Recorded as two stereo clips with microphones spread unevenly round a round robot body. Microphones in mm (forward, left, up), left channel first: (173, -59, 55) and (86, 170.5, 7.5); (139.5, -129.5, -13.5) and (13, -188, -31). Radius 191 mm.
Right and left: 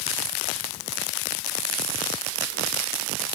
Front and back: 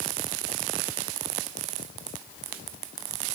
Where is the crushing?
I don't hear crushing.